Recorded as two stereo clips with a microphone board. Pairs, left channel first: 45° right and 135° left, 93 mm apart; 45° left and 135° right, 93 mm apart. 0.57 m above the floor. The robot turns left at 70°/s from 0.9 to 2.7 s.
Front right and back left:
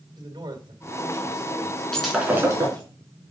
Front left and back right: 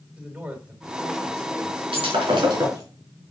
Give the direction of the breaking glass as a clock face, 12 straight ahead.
4 o'clock.